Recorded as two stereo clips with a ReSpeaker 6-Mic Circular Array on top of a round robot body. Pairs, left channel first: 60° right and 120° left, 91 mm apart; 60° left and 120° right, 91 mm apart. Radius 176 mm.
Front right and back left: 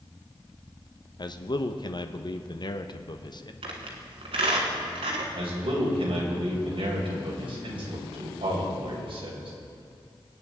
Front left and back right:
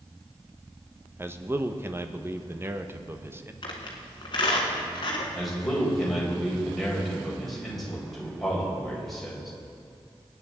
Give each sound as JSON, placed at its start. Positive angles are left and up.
{"t": 1.2, "sound": "a man speaking", "azimuth_deg": -65, "distance_m": 1.1}
{"t": 3.6, "sound": "a squeak", "azimuth_deg": 100, "distance_m": 1.4}
{"t": 5.3, "sound": "a man speaking", "azimuth_deg": 150, "distance_m": 3.5}